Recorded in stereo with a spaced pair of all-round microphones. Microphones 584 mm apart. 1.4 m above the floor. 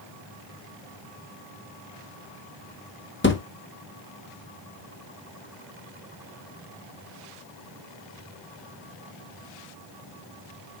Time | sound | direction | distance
3.2 | a thud | 20° left (ahead or behind) | 0.8 m